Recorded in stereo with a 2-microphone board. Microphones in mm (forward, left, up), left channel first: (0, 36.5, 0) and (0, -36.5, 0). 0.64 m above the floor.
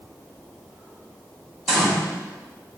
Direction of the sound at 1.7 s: Centre (ahead or behind).